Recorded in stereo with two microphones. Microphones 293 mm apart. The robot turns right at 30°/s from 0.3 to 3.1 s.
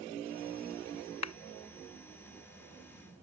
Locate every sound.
1.2 s a clap: 65° left (ahead or behind); by 1.3 s 60° left (ahead or behind)